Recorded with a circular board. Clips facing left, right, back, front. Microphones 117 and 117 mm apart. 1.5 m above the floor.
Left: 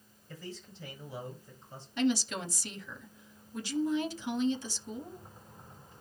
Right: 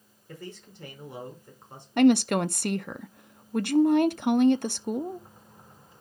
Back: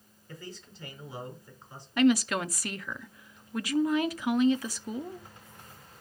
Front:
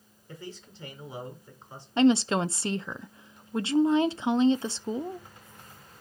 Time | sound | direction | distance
0.3 | a man speaking | 65° right | 4.5 m
2.0 | a woman speaking | 65° right | 0.5 m